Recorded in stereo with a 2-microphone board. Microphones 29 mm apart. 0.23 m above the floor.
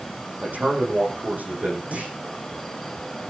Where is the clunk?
55° right (ahead or behind), 7.5 m.